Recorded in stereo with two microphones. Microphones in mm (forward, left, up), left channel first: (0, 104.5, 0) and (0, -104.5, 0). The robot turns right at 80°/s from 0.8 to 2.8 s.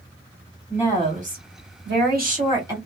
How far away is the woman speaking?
About 1.6 m.